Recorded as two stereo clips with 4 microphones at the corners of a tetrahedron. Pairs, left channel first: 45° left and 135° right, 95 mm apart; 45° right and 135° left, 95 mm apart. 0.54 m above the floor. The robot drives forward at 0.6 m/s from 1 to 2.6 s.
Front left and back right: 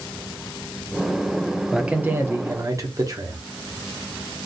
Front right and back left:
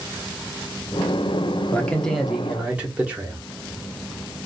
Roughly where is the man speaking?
Ahead right.